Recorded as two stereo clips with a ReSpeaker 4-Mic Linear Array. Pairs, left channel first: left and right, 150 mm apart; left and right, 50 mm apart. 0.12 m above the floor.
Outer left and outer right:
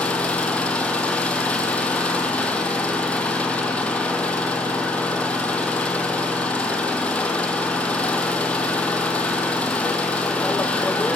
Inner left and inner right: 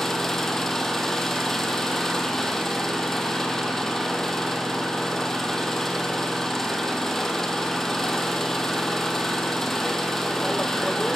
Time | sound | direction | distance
0.0 | an engine running | 10° left (ahead or behind) | 2.5 m